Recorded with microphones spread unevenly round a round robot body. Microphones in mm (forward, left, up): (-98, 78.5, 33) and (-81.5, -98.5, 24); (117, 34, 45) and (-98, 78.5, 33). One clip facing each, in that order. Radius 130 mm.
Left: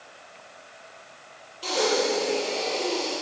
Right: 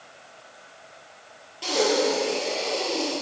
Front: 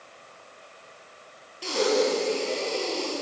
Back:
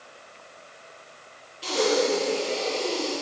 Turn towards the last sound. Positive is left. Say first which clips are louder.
# right 2 dB, even
turn(degrees=-55)